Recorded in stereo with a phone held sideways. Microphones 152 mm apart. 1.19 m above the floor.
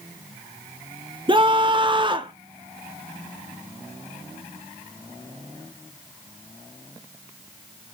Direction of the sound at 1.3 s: 30° right (ahead or behind).